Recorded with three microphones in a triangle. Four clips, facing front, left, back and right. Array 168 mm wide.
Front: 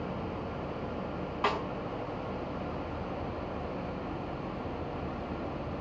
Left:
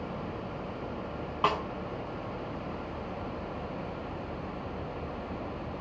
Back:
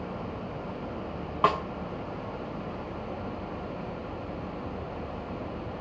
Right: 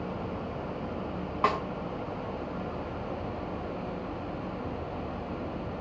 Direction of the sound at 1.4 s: 170° right.